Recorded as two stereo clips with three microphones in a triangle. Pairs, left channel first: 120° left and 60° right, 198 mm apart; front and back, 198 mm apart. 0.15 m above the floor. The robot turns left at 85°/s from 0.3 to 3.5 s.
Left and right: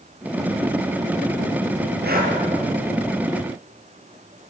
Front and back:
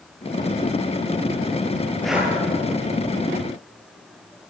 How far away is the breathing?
About 4.5 m.